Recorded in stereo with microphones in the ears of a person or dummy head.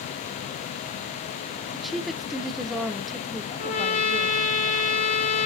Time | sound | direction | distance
1.7 | a woman speaking | 5° right (ahead or behind) | 0.5 m
3.6 | a trumpet | 35° left (ahead or behind) | 1.4 m